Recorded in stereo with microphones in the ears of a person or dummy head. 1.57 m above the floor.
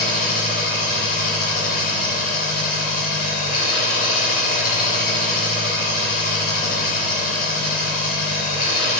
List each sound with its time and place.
0.0 s an engine running: 65° left (ahead or behind), 3.5 m